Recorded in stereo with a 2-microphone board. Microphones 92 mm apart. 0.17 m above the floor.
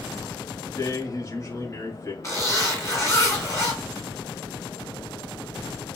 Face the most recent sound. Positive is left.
turn(degrees=35)  # may be behind; listen again after turning